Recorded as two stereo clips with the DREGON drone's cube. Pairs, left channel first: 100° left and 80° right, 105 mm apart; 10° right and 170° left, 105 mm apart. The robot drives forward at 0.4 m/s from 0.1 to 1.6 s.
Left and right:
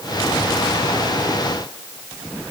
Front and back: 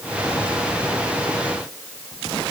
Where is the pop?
No pop in this recording.